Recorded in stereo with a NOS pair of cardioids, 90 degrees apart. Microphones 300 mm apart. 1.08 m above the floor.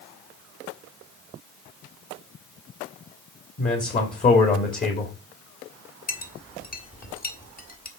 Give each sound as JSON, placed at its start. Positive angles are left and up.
{"t": 3.6, "sound": "a man speaking", "azimuth_deg": 25, "distance_m": 2.0}
{"t": 6.1, "sound": "a clink", "azimuth_deg": 30, "distance_m": 1.6}